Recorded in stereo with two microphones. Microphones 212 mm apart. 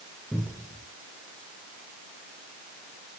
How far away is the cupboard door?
About 4.5 m.